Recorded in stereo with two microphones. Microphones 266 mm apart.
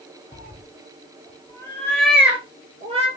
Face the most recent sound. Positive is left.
turn(degrees=-25)  # may be behind; listen again after turning